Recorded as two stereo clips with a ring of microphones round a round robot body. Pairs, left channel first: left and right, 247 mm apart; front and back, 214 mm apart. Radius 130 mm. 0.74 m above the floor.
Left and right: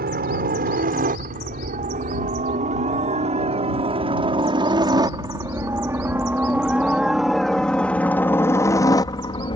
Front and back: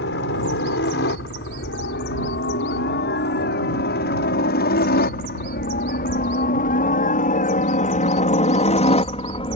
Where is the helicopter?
40° right; by 9.6 s 40° left.